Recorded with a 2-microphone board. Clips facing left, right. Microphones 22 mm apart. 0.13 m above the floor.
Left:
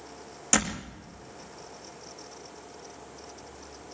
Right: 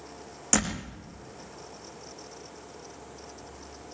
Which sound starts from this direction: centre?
A door slam, at 0.5 s.